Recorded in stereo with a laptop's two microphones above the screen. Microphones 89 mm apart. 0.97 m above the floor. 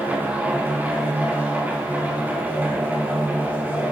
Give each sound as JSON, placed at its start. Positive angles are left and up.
{"t": 0.0, "sound": "a machine running", "side_deg": -20, "distance_m": 4.0}